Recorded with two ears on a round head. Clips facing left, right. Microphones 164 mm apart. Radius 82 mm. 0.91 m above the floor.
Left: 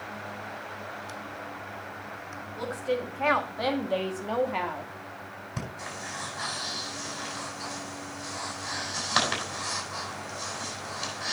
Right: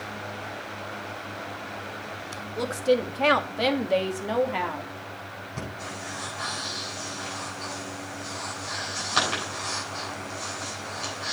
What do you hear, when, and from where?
2.6 s a woman speaking: 60° right (ahead or behind), 2 m; by 4.9 s 5° left (ahead or behind), 1.9 m
5.6 s breathing: 65° left (ahead or behind), 8 m